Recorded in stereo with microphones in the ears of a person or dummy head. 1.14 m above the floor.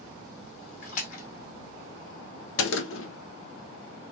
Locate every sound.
0.8 s a splash: 50° left (ahead or behind), 1.8 m
2.6 s a gunshot: 70° left (ahead or behind), 0.8 m